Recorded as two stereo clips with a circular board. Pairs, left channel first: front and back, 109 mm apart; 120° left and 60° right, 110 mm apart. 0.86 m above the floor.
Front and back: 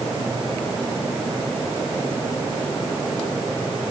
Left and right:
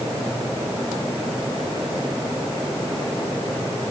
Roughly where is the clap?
I don't hear a clap.